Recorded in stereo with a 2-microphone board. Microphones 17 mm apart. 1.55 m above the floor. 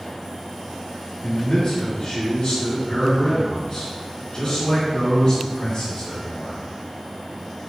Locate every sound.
1.2 s a man speaking: 80° left, 1.2 m